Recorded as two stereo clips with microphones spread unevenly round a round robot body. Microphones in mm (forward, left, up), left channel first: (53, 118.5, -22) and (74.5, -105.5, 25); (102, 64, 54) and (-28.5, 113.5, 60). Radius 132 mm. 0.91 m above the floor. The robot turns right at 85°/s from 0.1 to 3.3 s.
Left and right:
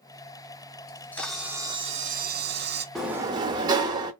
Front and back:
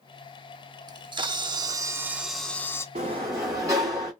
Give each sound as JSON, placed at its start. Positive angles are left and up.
{"t": 0.9, "sound": "a camera shutter", "azimuth_deg": 125, "distance_m": 0.7}
{"t": 3.0, "sound": "a sliding door", "azimuth_deg": -165, "distance_m": 0.5}